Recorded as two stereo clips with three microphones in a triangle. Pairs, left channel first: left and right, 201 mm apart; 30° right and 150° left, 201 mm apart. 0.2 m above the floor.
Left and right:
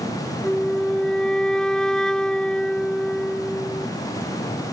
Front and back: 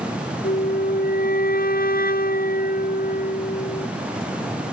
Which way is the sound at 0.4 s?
5° left.